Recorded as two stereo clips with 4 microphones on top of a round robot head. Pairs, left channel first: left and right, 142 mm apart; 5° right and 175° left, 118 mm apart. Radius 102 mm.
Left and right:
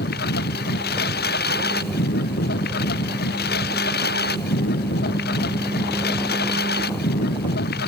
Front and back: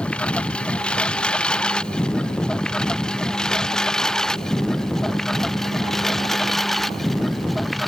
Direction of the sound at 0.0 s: 75° left.